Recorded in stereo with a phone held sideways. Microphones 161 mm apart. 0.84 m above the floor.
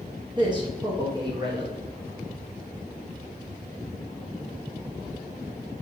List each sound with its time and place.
0.4 s a man speaking: 30° right (ahead or behind), 0.9 m